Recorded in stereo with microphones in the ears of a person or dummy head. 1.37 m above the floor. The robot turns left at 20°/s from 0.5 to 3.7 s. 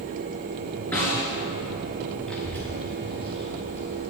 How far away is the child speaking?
About 2.0 m.